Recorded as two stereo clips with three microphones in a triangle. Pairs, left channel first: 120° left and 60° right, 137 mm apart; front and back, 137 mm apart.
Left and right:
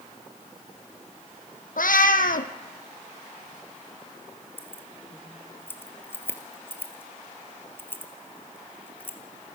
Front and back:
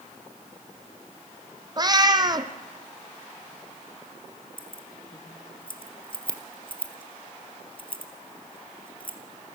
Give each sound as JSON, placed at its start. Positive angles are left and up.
{"t": 1.8, "sound": "a cat meowing", "azimuth_deg": 120, "distance_m": 1.2}
{"t": 4.6, "sound": "keys jangling", "azimuth_deg": 45, "distance_m": 2.0}